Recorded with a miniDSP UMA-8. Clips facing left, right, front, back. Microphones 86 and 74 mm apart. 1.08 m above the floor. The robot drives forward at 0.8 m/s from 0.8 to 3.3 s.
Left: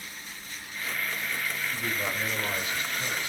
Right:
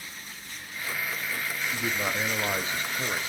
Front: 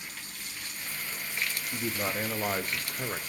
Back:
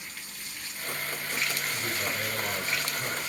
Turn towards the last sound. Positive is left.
turn(degrees=-45)